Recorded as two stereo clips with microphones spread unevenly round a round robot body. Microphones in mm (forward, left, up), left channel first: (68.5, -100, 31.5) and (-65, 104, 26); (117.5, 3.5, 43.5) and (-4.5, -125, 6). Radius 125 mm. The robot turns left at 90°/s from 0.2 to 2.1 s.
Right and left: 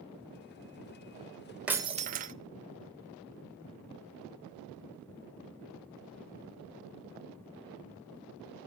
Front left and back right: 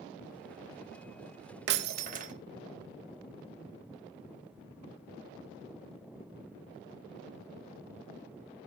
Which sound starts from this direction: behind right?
Breaking glass, at 1.7 s.